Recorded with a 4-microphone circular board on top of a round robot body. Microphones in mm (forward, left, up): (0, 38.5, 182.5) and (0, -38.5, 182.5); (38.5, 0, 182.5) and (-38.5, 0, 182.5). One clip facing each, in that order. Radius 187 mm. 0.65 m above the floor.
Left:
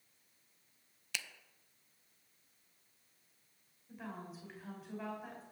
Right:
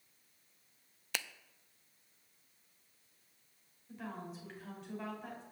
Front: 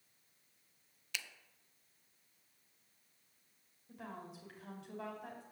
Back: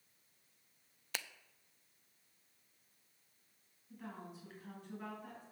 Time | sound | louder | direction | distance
1.1 | a finger snap | right 3 dB, back 1 dB | 135° right | 0.5 m
3.9 | a woman speaking | right 2 dB, front 1 dB | 5° left | 3.5 m